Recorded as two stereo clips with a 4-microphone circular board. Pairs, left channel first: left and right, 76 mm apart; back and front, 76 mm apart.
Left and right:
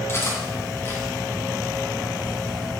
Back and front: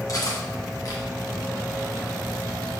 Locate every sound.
0.1 s cutlery clinking: 145° left, 2 m